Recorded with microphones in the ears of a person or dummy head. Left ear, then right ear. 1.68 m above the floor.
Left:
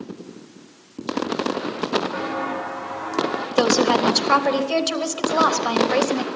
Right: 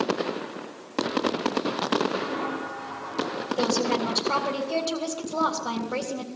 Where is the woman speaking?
70° left (ahead or behind), 3.5 m.